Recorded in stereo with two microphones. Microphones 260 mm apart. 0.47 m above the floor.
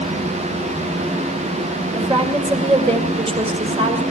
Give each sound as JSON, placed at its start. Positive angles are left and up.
{"t": 1.9, "sound": "a woman speaking", "side_deg": -20, "distance_m": 2.0}